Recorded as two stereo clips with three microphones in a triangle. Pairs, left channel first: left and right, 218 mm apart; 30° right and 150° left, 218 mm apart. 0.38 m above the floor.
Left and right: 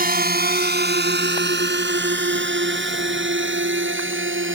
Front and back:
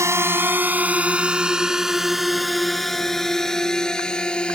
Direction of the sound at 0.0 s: 135° right.